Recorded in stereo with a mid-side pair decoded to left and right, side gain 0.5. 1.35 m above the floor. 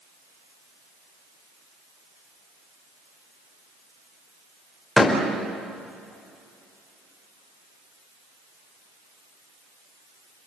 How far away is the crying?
No crying in this recording.